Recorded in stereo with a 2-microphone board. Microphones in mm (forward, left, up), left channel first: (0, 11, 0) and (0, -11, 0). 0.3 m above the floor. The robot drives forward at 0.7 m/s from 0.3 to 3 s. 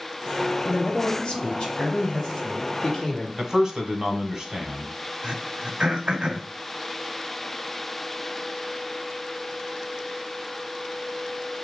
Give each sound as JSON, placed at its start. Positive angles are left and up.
{"t": 0.7, "sound": "a man speaking", "side_deg": 40, "distance_m": 1.2}
{"t": 3.4, "sound": "a man speaking", "side_deg": -25, "distance_m": 1.1}
{"t": 5.2, "sound": "throat clearing", "side_deg": -60, "distance_m": 0.9}